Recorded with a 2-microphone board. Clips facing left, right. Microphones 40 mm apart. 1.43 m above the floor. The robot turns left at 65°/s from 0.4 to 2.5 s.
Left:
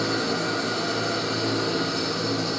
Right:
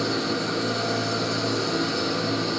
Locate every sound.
0.0 s an engine running: 105° left, 6.5 m; by 2.6 s 30° right, 6.5 m